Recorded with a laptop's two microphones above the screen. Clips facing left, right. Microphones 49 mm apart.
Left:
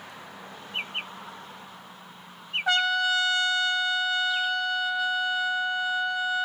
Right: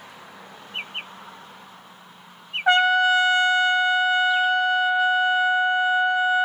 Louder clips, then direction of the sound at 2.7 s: Right 7 dB; 30° right (ahead or behind).